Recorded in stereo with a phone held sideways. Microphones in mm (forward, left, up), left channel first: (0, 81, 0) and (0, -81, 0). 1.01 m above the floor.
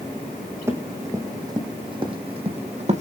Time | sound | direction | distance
0.7 | running footsteps | 15° right (ahead or behind) | 3.5 m